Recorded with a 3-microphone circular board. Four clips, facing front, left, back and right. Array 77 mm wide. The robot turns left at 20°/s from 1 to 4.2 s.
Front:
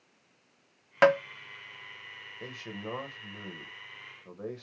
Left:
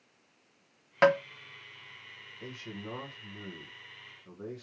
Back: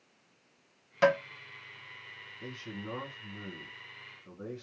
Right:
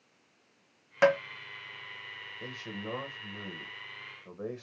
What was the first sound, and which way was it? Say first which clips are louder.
Tapping: left 1 dB, front 3 dB; 15° left.